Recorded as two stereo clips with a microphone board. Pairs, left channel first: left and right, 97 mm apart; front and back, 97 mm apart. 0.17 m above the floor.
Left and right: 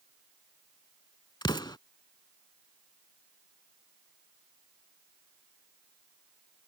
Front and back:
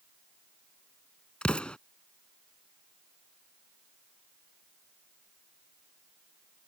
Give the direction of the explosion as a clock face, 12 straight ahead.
9 o'clock.